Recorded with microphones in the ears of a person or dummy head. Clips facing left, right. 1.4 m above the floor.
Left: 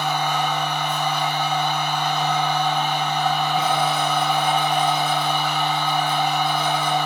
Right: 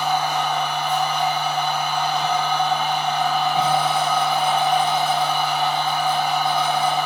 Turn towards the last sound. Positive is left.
turn(degrees=25)  # may be behind; listen again after turning